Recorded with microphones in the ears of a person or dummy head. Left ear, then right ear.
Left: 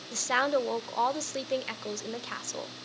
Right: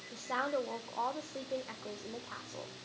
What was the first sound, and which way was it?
A woman speaking, 75° left (ahead or behind).